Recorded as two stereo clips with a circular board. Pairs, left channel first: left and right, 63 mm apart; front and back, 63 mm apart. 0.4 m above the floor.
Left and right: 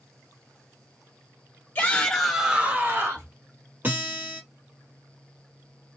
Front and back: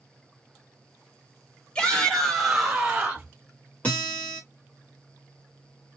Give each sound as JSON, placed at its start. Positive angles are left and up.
{"t": 1.8, "sound": "a shout", "azimuth_deg": 60, "distance_m": 1.1}
{"t": 3.8, "sound": "a guitar", "azimuth_deg": -50, "distance_m": 1.2}